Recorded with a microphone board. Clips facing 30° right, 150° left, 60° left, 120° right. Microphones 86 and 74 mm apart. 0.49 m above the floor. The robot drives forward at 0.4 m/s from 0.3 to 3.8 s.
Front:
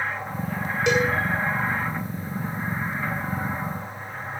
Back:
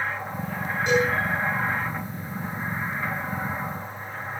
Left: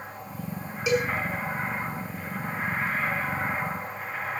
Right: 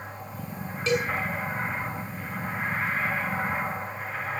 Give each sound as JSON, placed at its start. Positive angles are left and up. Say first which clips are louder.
{"t": 0.9, "sound": "a cowbell", "louder": "even, left 1 dB", "azimuth_deg": -15, "distance_m": 6.5}